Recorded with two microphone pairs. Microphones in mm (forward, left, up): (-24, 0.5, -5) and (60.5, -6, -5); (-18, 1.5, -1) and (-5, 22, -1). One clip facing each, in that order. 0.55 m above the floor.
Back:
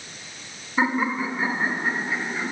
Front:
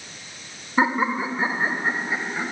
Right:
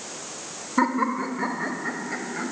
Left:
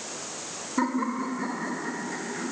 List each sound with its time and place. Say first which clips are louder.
0.8 s laughter: front 2 dB, right 4 dB; 70° right, 1.9 m